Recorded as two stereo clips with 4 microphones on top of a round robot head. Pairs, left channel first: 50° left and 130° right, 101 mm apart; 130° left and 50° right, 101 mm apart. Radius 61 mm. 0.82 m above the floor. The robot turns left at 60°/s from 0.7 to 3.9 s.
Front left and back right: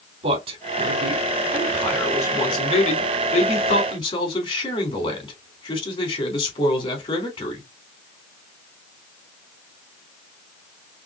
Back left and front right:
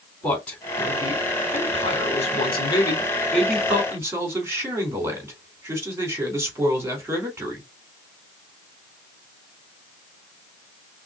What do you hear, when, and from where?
0.2 s a man speaking: 150° right, 3.5 m; by 7.6 s 15° left, 3.5 m